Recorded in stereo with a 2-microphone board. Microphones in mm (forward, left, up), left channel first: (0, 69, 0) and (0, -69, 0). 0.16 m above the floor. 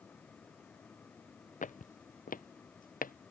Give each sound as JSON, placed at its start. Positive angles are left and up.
{"t": 1.6, "sound": "footsteps", "side_deg": 70}